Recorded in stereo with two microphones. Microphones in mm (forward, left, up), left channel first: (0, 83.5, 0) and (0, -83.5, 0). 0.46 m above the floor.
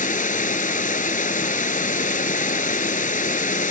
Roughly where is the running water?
Left.